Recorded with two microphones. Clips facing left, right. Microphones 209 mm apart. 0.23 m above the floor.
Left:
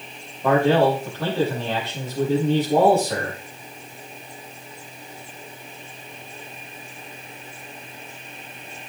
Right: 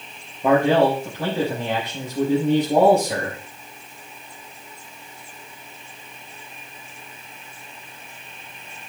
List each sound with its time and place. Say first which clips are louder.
0.4 s a man speaking: right 1 dB; 20° right (ahead or behind), 5 m